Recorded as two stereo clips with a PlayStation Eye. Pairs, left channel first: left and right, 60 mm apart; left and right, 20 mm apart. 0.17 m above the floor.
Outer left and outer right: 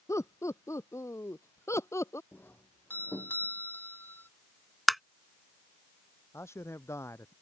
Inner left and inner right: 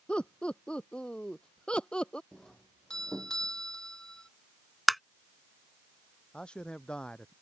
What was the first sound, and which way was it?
Laughter, 55° left (ahead or behind).